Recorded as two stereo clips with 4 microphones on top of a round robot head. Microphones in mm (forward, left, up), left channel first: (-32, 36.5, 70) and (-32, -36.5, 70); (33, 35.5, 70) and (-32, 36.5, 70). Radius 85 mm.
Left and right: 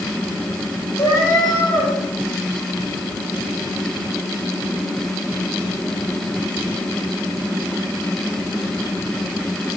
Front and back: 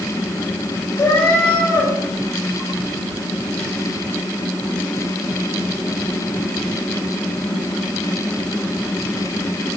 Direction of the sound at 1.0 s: 55° left.